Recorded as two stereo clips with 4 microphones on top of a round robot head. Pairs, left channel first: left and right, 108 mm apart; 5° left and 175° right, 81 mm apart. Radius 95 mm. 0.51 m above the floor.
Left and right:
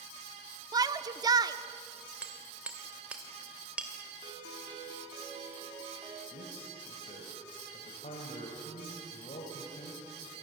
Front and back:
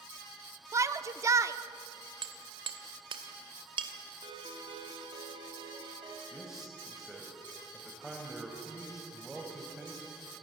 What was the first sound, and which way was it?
A shout, 130° right.